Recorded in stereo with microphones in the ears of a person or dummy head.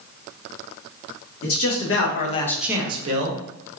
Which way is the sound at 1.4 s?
65° left (ahead or behind).